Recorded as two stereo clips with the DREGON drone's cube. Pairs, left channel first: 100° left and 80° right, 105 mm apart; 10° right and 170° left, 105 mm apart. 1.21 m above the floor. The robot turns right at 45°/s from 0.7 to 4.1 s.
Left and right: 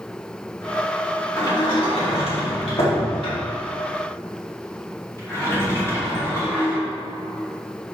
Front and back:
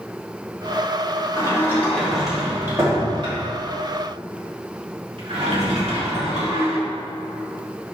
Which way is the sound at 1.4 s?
45° left.